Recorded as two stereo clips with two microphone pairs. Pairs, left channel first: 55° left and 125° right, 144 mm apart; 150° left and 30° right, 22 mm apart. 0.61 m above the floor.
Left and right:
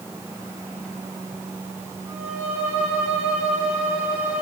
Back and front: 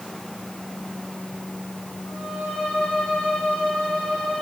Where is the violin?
160° left, 9.5 m.